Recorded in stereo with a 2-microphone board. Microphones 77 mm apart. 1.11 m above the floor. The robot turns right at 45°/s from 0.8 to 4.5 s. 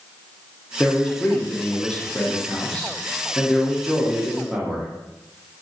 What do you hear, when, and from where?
0.8 s a man speaking: 15° left (ahead or behind), 0.5 m; by 4.9 s 10° right (ahead or behind), 0.5 m